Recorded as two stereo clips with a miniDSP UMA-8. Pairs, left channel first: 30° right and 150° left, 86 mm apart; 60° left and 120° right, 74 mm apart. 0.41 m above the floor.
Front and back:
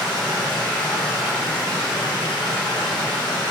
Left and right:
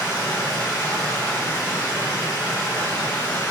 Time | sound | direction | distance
0.0 | running water | 45° left | 1.1 m